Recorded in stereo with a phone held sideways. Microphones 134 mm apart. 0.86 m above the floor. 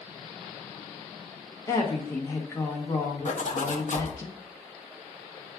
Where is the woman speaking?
20° left (ahead or behind), 0.8 m.